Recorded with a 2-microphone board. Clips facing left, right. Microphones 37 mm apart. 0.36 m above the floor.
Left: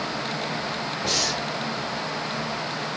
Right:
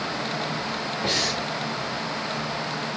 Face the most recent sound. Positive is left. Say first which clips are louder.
# right 1 dB
turn(degrees=-25)  # may be behind; listen again after turning